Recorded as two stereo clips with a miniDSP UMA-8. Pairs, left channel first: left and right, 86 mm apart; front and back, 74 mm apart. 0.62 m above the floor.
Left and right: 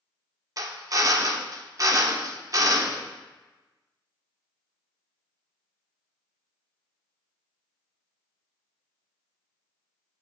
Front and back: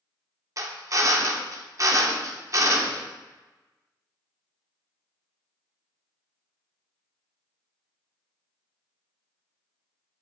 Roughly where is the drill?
Behind right.